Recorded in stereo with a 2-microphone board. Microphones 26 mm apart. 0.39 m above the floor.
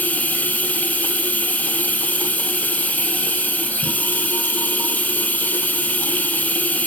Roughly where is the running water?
Left.